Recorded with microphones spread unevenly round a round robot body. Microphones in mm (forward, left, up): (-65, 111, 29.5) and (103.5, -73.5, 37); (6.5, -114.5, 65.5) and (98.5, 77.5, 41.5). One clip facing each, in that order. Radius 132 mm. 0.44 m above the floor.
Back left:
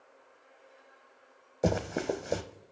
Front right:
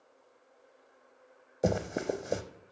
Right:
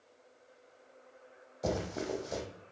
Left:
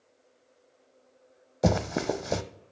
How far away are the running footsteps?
About 1.0 m.